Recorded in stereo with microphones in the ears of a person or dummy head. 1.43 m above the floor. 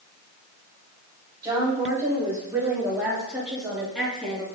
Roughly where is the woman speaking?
Right.